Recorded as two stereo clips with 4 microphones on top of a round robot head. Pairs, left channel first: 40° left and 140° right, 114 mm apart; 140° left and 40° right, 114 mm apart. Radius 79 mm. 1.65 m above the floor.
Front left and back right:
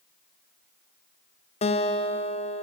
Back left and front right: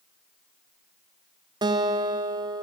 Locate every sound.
1.6 s a guitar: 10° left, 0.7 m